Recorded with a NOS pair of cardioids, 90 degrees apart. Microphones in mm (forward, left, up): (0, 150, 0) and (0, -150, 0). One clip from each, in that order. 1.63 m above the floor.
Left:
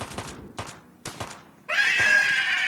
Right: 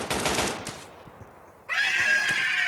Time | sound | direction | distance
1.7 | a scream | 35° left | 1.9 m